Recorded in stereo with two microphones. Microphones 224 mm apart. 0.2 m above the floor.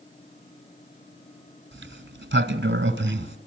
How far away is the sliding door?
About 1.3 m.